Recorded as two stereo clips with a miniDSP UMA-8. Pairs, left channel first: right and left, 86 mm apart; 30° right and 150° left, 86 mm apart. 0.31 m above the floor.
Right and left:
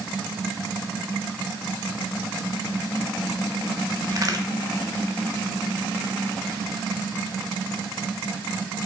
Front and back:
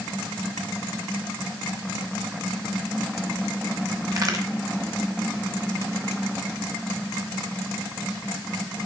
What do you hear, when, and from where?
4.1 s a crack: 120° left, 1.3 m